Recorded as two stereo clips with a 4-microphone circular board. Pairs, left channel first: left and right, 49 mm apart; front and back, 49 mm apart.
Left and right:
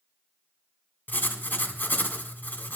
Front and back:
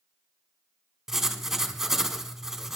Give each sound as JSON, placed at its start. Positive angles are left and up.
{"t": 1.1, "sound": "writing", "azimuth_deg": 105, "distance_m": 1.4}